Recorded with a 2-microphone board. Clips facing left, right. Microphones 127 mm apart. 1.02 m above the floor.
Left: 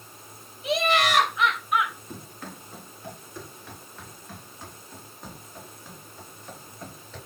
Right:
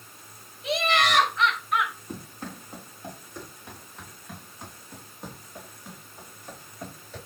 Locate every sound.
0.6 s laughter: centre (ahead or behind), 6 m; by 1.9 s 10° left (ahead or behind), 6.5 m
2.1 s running footsteps: 25° right (ahead or behind), 8.5 m; by 7.2 s 15° right (ahead or behind), 15 m